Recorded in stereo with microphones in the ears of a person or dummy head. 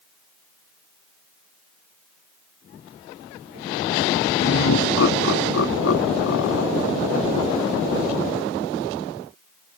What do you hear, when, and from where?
4.4 s laughter: 80° left; by 6.9 s 85° left